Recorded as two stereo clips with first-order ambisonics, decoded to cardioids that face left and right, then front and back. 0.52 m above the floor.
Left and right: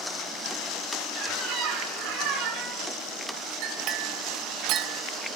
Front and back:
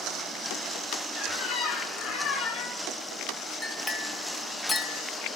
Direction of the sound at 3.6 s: 70° right.